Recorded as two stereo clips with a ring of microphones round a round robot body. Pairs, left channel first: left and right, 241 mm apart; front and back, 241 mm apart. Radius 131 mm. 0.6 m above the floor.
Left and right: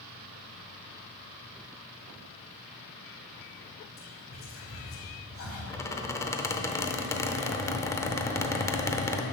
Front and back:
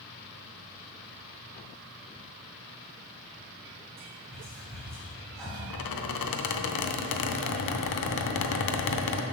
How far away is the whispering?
About 1.8 m.